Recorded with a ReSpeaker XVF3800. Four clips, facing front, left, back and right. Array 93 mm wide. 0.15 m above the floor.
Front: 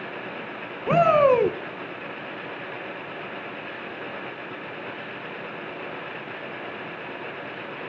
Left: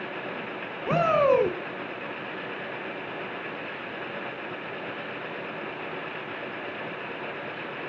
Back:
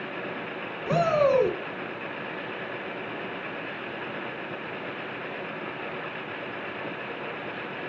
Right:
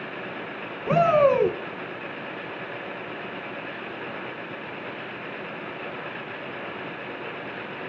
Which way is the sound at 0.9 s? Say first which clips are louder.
Right 3 dB, front 5 dB; 5° right.